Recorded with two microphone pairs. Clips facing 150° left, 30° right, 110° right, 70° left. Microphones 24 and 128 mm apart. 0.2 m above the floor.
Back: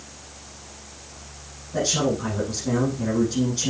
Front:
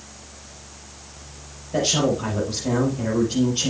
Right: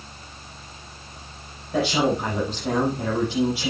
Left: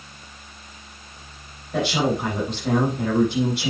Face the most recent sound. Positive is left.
turn(degrees=-20)